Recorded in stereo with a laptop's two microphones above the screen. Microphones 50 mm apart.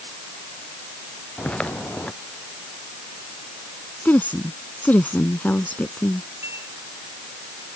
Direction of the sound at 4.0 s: 35° left (ahead or behind).